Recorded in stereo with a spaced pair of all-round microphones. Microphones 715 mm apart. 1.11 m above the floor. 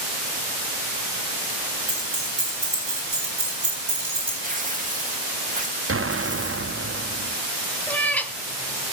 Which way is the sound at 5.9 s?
20° right (ahead or behind).